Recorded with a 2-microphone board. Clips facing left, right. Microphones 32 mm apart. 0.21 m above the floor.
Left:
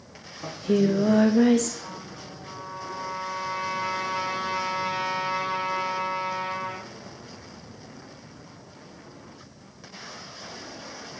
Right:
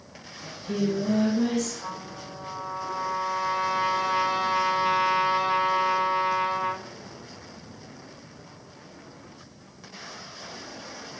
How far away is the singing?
About 3 m.